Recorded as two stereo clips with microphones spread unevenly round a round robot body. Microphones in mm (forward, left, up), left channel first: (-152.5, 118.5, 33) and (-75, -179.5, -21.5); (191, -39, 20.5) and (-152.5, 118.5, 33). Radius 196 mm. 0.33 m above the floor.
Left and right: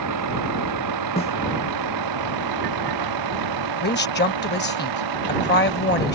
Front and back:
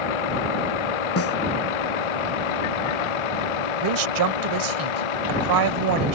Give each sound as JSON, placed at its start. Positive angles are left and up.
{"t": 0.0, "sound": "a vehicle", "azimuth_deg": -25}
{"t": 1.2, "sound": "a snare drum", "azimuth_deg": 30}
{"t": 3.8, "sound": "a woman speaking", "azimuth_deg": 160}